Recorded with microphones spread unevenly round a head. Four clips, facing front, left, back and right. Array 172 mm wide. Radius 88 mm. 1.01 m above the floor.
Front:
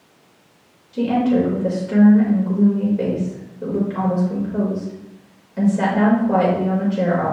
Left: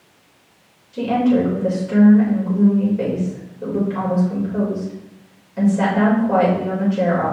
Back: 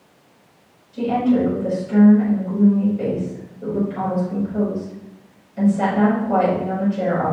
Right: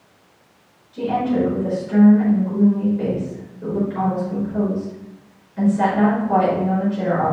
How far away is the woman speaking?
About 4 m.